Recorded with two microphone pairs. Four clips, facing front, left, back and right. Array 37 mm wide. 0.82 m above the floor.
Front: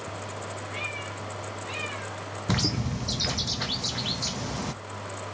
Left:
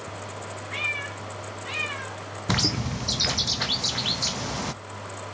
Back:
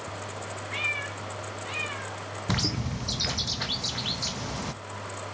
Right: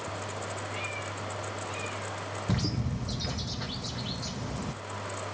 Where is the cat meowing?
130° left, 2 m; by 2.2 s 100° left, 2.0 m.